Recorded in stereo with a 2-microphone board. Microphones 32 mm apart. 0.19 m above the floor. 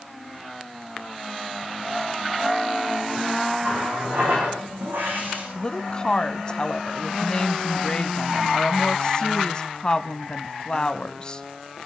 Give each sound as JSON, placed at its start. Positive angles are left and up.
{"t": 3.6, "sound": "a running tap", "side_deg": -85, "distance_m": 9.0}
{"t": 5.5, "sound": "a woman speaking", "side_deg": 25, "distance_m": 1.2}